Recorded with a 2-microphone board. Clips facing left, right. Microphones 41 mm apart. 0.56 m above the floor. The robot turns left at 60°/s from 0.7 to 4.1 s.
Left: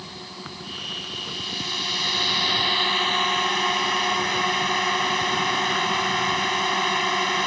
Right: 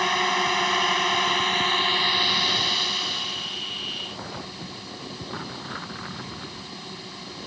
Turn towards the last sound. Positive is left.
turn(degrees=75)